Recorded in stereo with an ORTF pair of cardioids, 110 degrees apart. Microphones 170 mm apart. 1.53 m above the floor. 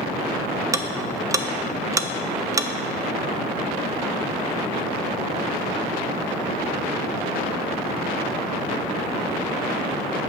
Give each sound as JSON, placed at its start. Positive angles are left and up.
{"t": 0.7, "sound": "ticking", "azimuth_deg": -20, "distance_m": 0.6}